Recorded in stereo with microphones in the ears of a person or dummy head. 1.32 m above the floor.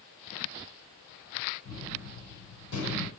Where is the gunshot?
85° left, 5 m.